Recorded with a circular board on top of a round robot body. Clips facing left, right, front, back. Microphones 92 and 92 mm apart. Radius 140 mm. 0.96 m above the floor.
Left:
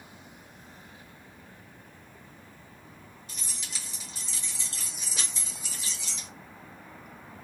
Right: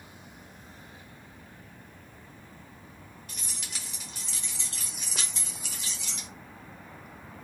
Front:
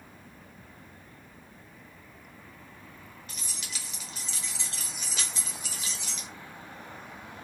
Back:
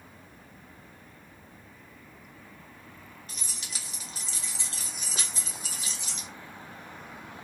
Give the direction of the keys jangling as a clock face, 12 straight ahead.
4 o'clock.